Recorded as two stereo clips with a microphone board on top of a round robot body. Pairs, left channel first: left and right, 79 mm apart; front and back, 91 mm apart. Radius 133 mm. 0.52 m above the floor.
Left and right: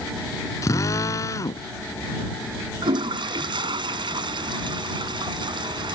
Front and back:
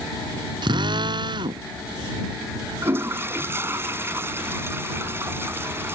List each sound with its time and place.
0.6 s a drill: 140° left
2.8 s a toilet flushing: 115° right